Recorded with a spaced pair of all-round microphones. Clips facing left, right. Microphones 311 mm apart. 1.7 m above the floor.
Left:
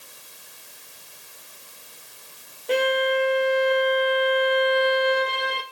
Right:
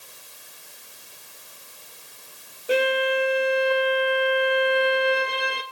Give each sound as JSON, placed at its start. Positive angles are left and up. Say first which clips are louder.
{"t": 2.7, "sound": "a violin", "louder": "even", "side_deg": -10, "distance_m": 1.0}